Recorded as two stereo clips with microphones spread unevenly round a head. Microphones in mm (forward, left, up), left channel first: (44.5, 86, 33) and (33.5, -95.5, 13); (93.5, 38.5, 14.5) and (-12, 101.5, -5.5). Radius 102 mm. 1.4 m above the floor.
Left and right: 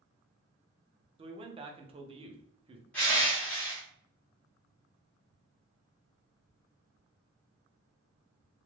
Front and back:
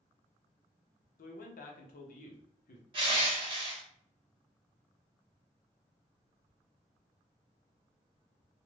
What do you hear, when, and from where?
1.2 s a man speaking: 30° right, 0.7 m
2.9 s crushing: 150° left, 1.0 m